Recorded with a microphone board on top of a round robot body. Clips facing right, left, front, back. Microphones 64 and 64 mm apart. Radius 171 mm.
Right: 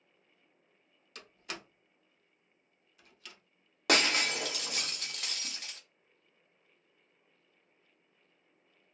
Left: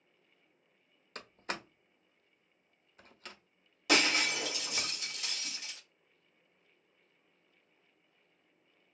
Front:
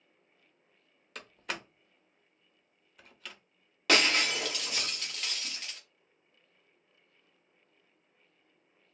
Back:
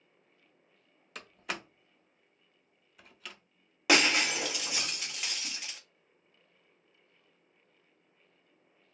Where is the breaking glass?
105° right, 1.0 m.